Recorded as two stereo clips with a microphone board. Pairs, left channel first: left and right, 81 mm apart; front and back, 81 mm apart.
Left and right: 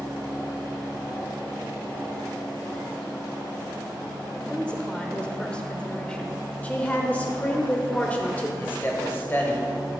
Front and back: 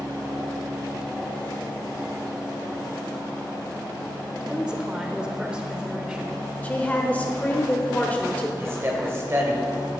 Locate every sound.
4.4 s a woman speaking: 130° left, 0.9 m
6.6 s a woman speaking: 45° left, 1.0 m
8.6 s a man speaking: 140° left, 2.0 m